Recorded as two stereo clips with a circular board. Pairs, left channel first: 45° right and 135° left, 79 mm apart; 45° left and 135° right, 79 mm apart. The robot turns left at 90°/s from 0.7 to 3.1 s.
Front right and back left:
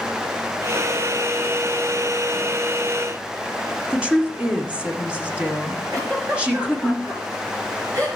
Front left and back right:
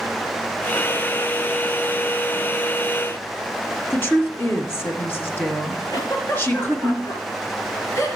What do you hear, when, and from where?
3.9 s a woman speaking: 75° left, 1.5 m
5.9 s a giggle: 90° left, 3.5 m